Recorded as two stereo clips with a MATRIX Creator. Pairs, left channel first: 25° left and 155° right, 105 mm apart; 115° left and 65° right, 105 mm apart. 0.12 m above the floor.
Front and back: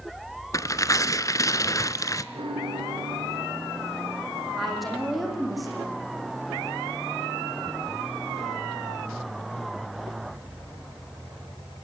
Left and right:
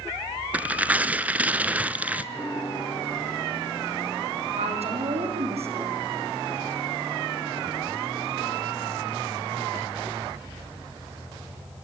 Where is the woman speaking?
65° right, 7.5 m.